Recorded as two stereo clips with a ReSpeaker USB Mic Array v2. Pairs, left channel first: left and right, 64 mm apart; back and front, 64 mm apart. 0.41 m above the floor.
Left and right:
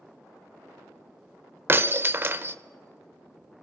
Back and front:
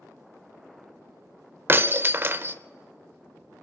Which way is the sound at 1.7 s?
45° right.